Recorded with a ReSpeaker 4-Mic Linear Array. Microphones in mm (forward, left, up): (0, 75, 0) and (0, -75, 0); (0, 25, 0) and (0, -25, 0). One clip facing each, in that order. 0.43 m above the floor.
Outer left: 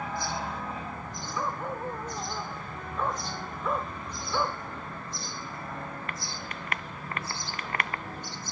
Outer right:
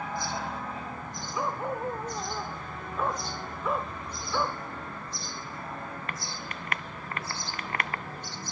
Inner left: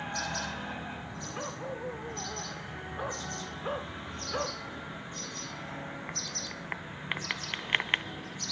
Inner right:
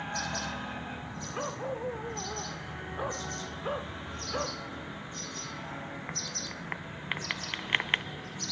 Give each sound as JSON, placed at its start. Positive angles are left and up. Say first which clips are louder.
{"t": 1.3, "sound": "a dog barking", "louder": "outer right 2 dB, inner right 4 dB", "side_deg": -15}